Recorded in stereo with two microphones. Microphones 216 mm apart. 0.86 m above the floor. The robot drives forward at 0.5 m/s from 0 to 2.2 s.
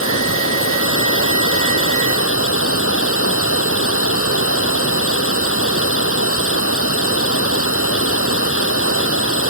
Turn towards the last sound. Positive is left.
turn(degrees=85)